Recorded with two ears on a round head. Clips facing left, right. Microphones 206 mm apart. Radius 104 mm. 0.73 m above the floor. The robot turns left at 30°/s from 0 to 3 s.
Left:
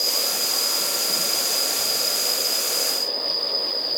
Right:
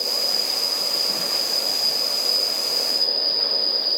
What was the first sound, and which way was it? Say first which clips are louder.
An insect: even; 5° right.